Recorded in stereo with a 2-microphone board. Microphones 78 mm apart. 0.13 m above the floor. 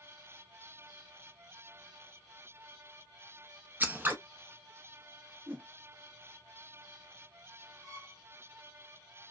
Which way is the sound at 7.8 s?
30° right (ahead or behind).